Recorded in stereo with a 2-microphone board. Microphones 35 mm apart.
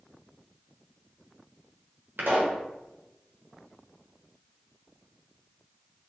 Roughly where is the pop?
Right.